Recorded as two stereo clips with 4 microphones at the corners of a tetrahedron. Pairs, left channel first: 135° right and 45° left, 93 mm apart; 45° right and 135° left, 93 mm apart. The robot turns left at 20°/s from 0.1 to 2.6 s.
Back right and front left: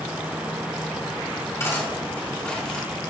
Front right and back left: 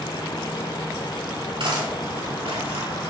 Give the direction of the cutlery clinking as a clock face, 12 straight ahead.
6 o'clock.